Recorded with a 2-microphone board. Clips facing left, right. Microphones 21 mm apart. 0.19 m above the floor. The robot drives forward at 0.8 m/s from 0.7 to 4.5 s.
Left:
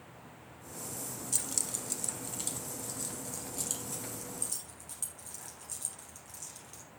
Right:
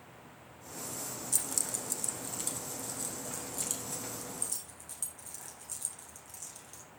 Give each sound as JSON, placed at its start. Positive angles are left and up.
{"t": 1.3, "sound": "keys jangling", "side_deg": 15, "distance_m": 0.8}